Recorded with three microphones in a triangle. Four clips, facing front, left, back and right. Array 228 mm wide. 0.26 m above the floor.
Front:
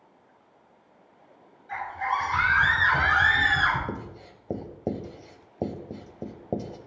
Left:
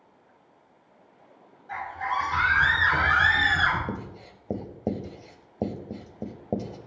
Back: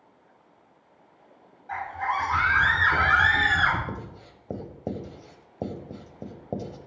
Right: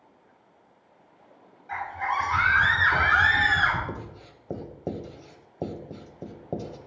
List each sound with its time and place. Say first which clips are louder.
1.7 s a scream: right 1 dB, even; 165° right, 2.5 m; by 3.8 s 170° right, 3.5 m
3.9 s writing: left 2 dB, front 2 dB; 60° left, 0.7 m